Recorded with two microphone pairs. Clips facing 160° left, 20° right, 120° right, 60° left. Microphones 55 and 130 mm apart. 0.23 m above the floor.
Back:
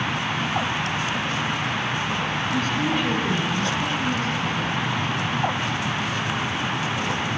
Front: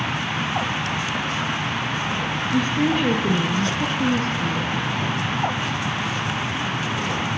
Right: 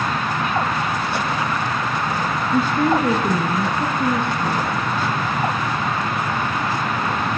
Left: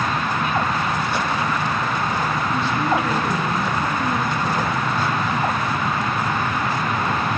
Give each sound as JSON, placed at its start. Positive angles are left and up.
{"t": 2.5, "sound": "a woman speaking", "azimuth_deg": -85, "distance_m": 2.5}